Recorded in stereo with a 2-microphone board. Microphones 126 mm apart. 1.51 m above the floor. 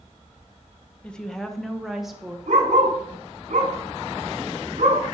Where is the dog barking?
70° right (ahead or behind), 3 m.